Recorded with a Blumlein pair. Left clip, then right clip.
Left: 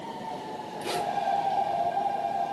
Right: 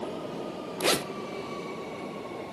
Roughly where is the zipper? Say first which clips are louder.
Right 5 dB; ahead right.